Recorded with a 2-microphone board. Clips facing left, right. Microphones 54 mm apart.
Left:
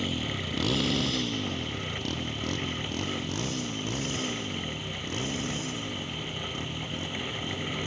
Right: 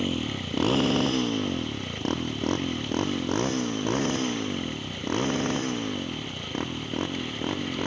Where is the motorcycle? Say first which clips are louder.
Right 3 dB; 35° right (ahead or behind); by 7.9 s 50° right (ahead or behind).